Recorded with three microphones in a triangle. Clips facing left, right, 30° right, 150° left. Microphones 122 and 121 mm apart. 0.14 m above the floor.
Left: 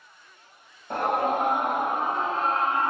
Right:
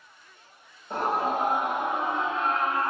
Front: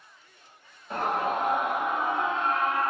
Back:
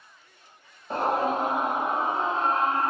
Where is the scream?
100° left, 2 m; by 2.9 s 130° left, 1.2 m.